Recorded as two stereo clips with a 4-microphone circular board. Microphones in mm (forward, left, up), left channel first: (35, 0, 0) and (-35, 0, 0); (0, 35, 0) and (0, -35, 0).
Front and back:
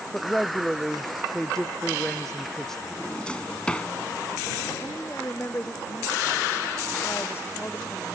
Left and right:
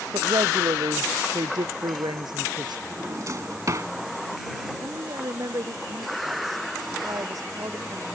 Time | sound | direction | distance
0.1 | a woman speaking | 85° right | ?
2.9 | a drawer | 70° right | ?
4.8 | a woman speaking | 55° right | ?